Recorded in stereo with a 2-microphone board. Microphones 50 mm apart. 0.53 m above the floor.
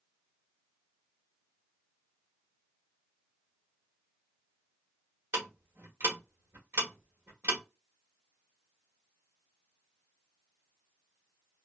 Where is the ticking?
55° right (ahead or behind), 1.5 m.